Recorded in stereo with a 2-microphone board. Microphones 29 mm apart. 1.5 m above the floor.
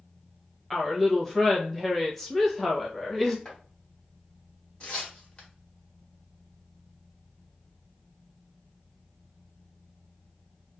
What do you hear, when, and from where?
0.7 s a woman speaking: 10° left (ahead or behind), 1.1 m
3.5 s chopping: 30° left (ahead or behind), 1.5 m
4.8 s tearing paper: 30° left (ahead or behind), 1.3 m